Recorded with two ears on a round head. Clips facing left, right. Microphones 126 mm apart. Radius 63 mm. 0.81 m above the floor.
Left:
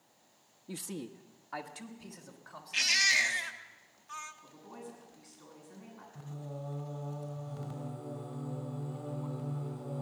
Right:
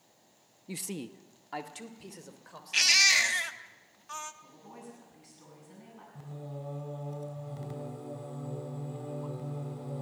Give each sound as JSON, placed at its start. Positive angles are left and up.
{"t": 0.7, "sound": "a man speaking", "side_deg": -10, "distance_m": 0.6}
{"t": 2.7, "sound": "a baby crying", "side_deg": -70, "distance_m": 1.1}
{"t": 4.4, "sound": "a woman speaking", "side_deg": -30, "distance_m": 8.0}
{"t": 6.2, "sound": "singing", "side_deg": -15, "distance_m": 4.0}